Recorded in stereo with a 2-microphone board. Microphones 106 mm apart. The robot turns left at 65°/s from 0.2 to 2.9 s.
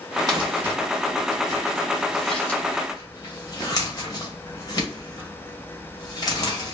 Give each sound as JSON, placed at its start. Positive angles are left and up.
{"t": 0.3, "sound": "crumpling", "side_deg": -40, "distance_m": 1.0}